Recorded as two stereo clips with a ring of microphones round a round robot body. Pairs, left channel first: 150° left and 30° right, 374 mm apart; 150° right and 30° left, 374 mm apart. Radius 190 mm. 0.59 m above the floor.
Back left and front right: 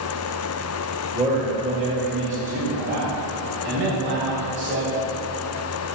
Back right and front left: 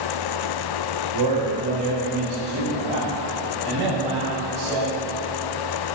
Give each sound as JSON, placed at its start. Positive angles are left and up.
{"t": 1.1, "sound": "a man speaking", "azimuth_deg": 50, "distance_m": 2.5}